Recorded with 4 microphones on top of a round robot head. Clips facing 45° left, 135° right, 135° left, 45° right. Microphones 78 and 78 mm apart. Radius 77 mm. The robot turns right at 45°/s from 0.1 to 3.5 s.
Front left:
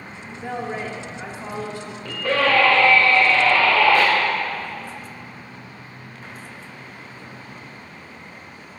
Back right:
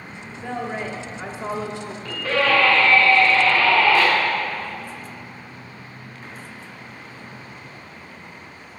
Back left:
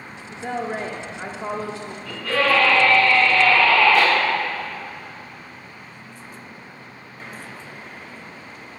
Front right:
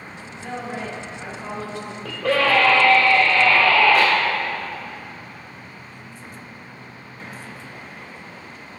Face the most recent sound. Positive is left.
turn(degrees=40)